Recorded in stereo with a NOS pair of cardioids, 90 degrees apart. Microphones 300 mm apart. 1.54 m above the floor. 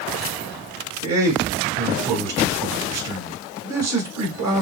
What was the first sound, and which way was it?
A man speaking, 65° right.